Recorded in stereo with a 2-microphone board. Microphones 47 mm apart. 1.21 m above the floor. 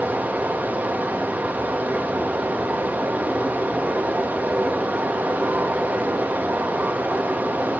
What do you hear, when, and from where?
0.0 s running water: 40° right (ahead or behind), 1.4 m